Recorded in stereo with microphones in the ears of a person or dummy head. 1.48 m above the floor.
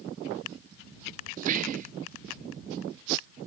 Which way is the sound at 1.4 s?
40° right (ahead or behind).